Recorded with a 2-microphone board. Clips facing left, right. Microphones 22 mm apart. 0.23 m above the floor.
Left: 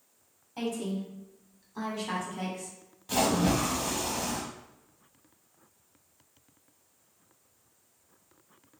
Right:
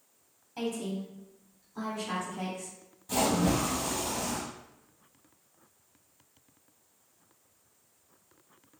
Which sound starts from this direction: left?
A splash, at 3.1 s.